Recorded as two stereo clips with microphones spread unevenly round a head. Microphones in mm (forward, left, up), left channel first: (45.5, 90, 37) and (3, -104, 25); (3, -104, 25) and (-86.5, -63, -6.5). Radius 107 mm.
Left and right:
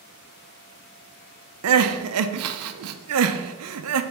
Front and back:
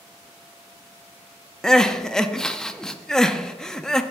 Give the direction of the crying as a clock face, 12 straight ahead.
4 o'clock.